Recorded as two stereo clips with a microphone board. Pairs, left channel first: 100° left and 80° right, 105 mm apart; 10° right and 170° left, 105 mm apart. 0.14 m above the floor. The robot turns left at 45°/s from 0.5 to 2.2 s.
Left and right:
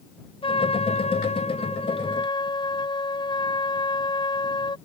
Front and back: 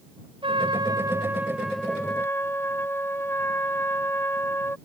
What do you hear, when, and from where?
0.4 s a trumpet: 135° left; by 4.8 s 60° left